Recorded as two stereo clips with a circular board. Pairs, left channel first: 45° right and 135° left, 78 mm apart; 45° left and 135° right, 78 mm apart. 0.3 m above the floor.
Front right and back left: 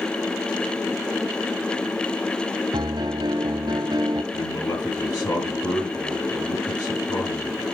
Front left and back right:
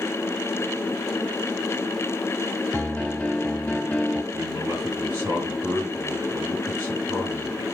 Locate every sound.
2.7 s a piano: 110° left, 1.2 m
4.3 s a man speaking: 80° right, 6 m